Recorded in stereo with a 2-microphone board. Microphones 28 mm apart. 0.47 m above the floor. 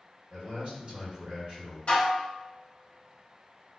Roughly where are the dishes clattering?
Left.